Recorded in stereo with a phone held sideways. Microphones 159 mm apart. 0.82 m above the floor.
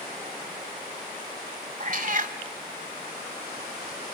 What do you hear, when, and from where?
1.8 s a cat meowing: 55° right (ahead or behind), 1.1 m